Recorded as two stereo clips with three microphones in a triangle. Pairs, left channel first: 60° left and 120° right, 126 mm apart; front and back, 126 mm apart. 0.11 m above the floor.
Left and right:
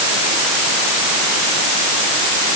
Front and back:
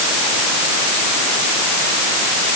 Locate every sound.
Only background noise.